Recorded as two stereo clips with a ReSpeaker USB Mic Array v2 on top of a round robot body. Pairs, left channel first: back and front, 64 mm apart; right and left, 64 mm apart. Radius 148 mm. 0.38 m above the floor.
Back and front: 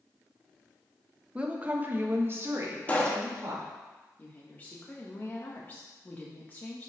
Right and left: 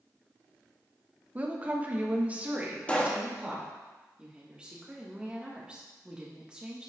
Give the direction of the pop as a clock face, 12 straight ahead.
5 o'clock.